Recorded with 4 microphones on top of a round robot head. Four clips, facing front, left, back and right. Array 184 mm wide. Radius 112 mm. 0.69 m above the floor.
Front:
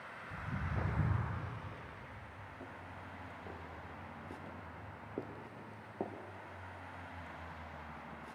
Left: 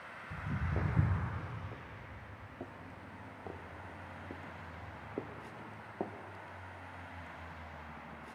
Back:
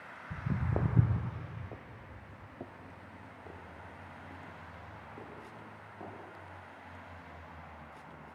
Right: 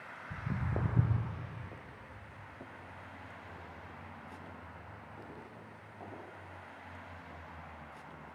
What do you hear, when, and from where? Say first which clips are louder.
0.3 s footsteps: right 1 dB, back 7 dB; 160° right, 1.6 m; by 6.1 s 50° left, 1.9 m